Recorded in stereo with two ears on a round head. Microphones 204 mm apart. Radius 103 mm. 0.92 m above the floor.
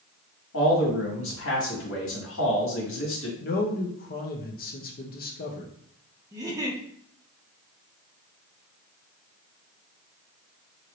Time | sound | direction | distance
0.5 | a man speaking | 65° left (ahead or behind) | 2.0 m
3.4 | a man speaking | 45° left (ahead or behind) | 0.8 m
6.3 | a giggle | 15° right (ahead or behind) | 0.9 m